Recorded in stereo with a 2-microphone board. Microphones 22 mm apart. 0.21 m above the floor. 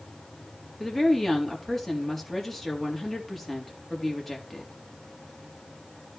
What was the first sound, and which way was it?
A woman speaking, 10° left (ahead or behind).